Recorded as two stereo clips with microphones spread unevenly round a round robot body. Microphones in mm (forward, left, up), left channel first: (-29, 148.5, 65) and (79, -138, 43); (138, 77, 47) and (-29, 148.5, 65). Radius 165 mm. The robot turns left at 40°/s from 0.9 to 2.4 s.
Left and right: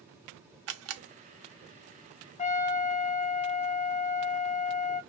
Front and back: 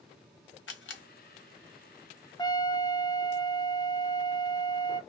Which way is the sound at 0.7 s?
25° right.